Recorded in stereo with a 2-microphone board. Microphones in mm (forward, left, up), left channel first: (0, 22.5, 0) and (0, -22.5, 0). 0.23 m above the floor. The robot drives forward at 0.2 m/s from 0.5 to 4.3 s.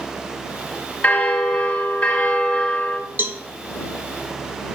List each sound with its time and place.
1.0 s a bell: 30° left (ahead or behind), 1.3 m; by 3.0 s 25° left (ahead or behind), 1.6 m
3.2 s a cowbell: 50° right (ahead or behind), 0.5 m